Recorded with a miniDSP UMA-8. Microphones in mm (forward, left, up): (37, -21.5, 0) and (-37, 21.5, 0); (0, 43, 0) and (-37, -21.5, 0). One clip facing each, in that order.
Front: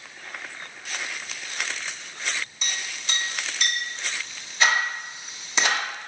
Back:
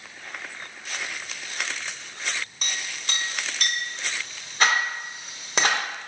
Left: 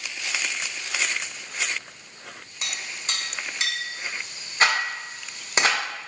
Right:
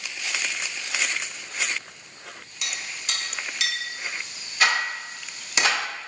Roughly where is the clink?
Behind left.